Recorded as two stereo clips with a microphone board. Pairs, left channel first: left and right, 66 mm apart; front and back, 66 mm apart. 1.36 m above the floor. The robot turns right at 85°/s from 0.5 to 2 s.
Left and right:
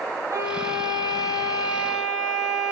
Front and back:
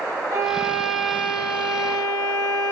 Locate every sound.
0.3 s a violin: 135° right, 2 m; by 2.7 s 10° right, 2 m